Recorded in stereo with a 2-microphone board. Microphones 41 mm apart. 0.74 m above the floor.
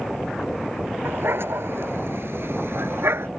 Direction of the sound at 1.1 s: 70° right (ahead or behind).